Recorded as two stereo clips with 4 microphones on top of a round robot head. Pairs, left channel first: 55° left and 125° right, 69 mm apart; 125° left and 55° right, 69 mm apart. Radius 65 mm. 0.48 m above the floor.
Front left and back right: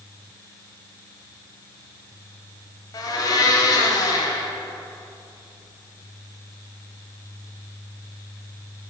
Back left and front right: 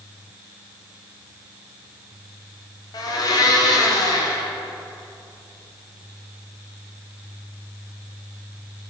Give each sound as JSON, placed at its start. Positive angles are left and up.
{"t": 2.9, "sound": "a blender", "azimuth_deg": 90, "distance_m": 1.1}